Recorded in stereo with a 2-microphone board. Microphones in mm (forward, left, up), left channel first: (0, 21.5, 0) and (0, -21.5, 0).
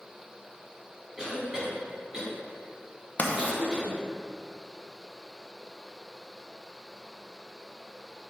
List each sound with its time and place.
1.2 s a cough: 15° right (ahead or behind), 2 m
3.2 s writing: 40° left (ahead or behind), 0.8 m